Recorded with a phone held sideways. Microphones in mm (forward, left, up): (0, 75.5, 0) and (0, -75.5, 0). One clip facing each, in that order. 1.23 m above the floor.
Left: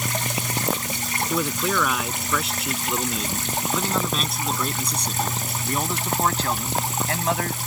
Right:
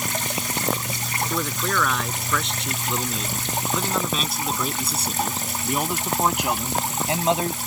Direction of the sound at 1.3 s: 10° left (ahead or behind).